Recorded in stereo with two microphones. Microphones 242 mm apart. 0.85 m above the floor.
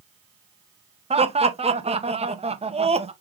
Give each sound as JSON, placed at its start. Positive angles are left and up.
{"t": 1.1, "sound": "laughter", "side_deg": -25, "distance_m": 0.7}